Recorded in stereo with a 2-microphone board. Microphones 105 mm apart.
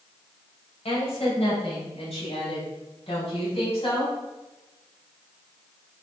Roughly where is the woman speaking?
Left.